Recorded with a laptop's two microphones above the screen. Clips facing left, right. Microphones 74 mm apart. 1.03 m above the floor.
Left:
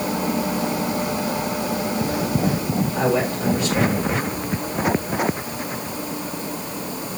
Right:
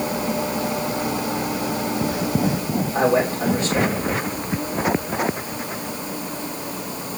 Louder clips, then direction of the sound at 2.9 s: Right 4 dB; 30° right (ahead or behind).